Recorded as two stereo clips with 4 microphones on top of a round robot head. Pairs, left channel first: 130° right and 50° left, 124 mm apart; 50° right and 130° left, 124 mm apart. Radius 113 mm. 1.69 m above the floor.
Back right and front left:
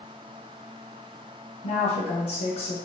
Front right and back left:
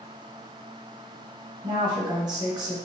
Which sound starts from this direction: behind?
A woman speaking, at 1.6 s.